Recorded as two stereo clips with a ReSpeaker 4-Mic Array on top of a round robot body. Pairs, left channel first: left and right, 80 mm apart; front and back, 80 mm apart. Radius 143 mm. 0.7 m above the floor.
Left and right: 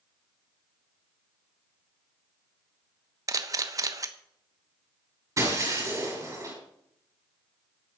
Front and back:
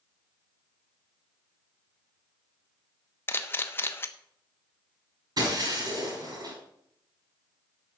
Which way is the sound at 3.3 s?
55° right.